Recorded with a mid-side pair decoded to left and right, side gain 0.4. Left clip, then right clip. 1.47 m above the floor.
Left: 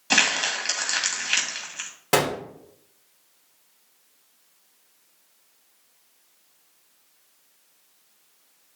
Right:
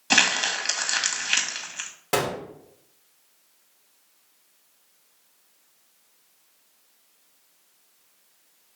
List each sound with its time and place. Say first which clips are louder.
0.1 s crumpling: even; 15° right, 1.8 m
2.1 s a gunshot: left 3 dB; 35° left, 1.8 m